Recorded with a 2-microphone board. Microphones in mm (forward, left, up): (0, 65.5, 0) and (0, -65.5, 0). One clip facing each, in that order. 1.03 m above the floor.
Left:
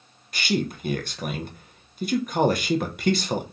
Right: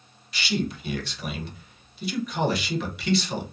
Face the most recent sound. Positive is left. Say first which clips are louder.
# left 2 dB
turn(degrees=45)  # may be behind; listen again after turning